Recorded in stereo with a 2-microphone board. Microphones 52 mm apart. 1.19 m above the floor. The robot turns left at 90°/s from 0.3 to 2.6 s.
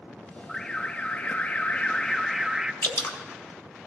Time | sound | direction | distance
0.5 | an alarm | 5° left (ahead or behind) | 0.6 m
2.8 | dripping | 55° left (ahead or behind) | 0.9 m